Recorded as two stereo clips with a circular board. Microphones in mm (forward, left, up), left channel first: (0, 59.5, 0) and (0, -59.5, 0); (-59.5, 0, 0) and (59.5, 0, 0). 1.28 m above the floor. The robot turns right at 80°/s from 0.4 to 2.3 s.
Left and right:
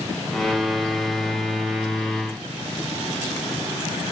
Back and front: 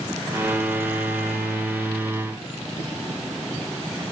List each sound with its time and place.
Only background noise.